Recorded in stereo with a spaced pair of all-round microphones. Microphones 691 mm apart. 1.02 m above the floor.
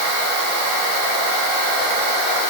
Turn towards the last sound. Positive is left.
No sound to turn to.